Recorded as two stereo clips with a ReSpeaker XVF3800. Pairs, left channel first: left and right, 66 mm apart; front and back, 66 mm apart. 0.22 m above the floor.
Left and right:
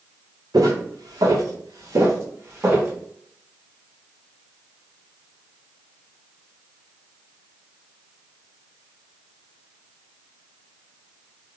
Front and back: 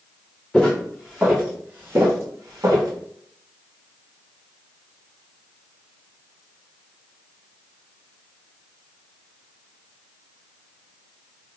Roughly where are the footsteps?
Right.